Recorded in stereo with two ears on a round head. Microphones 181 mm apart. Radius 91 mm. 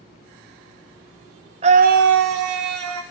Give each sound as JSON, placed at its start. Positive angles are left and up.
{"t": 1.6, "sound": "a scream", "side_deg": -30, "distance_m": 0.5}